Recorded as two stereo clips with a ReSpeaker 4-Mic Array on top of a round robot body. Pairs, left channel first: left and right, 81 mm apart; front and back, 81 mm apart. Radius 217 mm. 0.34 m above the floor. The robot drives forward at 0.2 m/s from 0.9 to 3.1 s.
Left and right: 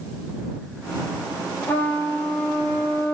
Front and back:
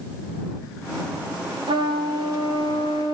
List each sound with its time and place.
1.7 s a trumpet: 155° left, 1.2 m; by 3.1 s 160° left, 1.4 m